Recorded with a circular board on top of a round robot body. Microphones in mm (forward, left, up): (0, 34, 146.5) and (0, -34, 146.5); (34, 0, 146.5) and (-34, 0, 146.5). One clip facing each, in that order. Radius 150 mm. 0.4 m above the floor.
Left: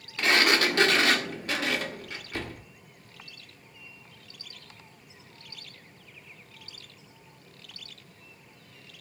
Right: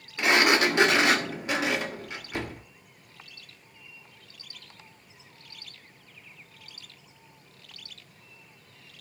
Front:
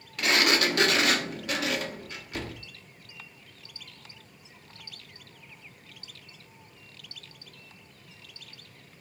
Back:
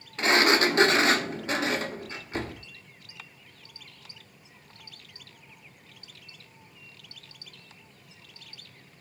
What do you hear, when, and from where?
0.2 s a sliding door: 155° right, 1.7 m